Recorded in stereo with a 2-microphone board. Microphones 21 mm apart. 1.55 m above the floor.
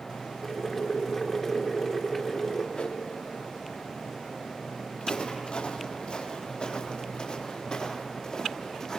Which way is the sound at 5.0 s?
65° left (ahead or behind).